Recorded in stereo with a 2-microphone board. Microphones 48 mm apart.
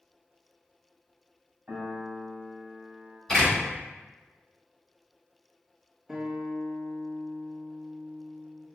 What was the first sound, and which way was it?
A piano, 40° right (ahead or behind).